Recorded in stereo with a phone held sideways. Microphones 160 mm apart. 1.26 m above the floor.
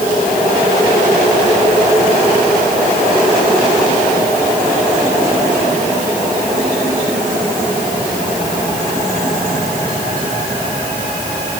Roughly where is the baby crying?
I don't hear a baby crying.